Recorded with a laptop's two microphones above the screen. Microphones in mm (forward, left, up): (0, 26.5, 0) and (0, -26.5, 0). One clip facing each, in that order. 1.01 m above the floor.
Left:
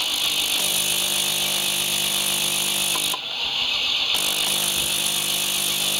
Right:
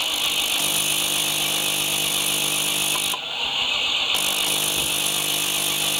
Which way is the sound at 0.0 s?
15° right (ahead or behind).